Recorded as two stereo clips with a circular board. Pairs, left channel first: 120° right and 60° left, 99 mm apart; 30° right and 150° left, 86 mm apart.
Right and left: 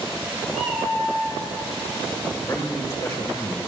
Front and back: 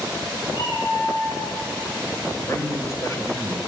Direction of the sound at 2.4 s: 65° right.